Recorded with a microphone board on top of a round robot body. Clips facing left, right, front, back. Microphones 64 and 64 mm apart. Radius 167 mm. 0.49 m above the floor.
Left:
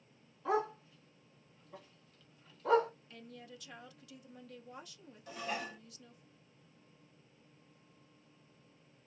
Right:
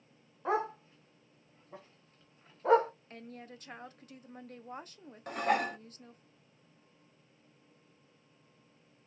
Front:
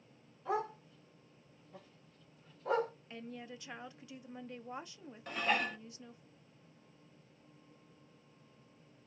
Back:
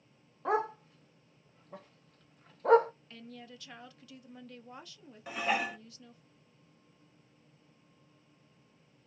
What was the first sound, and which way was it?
A dog barking, 145° right.